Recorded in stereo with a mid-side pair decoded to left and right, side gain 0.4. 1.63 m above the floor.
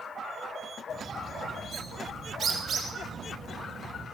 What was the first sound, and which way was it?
A bird, 60° right.